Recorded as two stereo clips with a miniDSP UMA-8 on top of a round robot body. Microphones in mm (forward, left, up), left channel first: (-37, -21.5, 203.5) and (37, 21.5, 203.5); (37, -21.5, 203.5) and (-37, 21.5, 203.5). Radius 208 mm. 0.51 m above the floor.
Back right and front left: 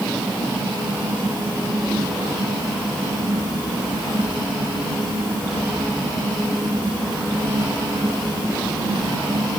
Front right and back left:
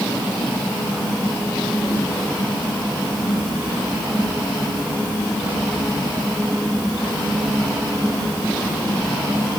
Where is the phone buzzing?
I don't hear a phone buzzing.